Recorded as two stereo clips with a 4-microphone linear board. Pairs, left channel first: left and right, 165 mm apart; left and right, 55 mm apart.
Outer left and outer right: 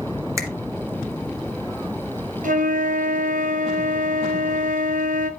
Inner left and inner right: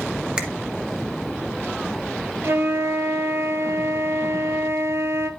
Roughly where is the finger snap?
Centre.